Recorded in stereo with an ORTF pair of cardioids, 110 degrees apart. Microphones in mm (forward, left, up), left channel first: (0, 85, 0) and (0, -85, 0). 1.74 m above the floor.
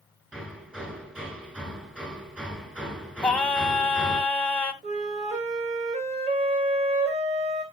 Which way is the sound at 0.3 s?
5° right.